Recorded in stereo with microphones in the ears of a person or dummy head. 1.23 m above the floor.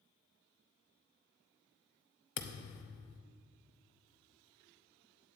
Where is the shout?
No shout in this recording.